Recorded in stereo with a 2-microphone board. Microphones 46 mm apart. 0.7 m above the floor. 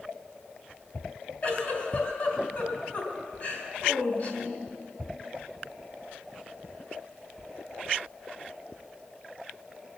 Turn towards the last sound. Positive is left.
turn(degrees=40)  # may be behind; listen again after turning